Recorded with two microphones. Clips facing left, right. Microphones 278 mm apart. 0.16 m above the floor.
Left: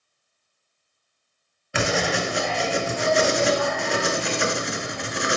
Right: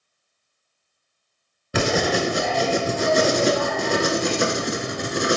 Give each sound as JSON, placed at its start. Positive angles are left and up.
{"t": 1.7, "sound": "writing", "side_deg": -50, "distance_m": 0.6}